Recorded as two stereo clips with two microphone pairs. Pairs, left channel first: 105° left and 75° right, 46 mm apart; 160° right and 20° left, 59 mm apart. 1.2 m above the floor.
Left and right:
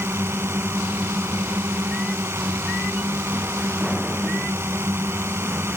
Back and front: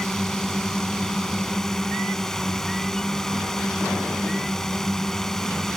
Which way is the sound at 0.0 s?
75° right.